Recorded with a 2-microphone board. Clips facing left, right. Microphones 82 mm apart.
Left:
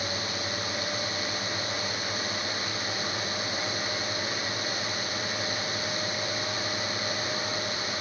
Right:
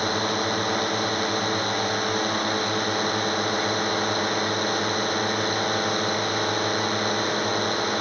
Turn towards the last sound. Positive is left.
turn(degrees=-55)  # may be behind; listen again after turning